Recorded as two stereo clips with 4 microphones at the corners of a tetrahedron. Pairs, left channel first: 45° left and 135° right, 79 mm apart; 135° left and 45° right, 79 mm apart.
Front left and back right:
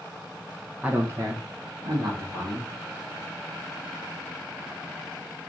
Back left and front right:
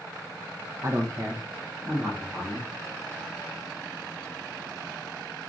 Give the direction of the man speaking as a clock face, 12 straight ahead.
2 o'clock.